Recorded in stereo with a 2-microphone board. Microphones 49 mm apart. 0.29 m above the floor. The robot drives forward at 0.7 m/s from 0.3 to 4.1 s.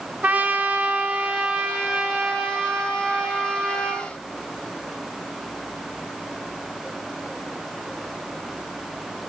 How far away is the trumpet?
About 1.0 m.